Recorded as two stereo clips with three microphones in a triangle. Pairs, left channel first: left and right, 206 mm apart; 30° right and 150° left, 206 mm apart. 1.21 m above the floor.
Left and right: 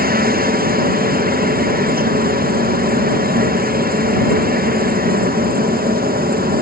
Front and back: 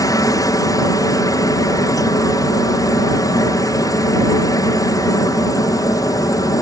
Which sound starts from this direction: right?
A helicopter, at 0.0 s.